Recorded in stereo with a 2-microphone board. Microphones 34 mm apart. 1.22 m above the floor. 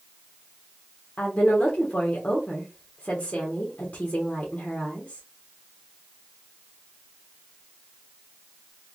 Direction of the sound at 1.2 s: 65° left (ahead or behind).